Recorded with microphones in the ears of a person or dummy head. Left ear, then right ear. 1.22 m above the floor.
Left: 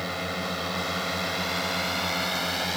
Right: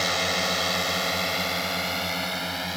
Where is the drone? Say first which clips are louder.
Right 6 dB; 35° right (ahead or behind); by 2.8 s 10° left (ahead or behind).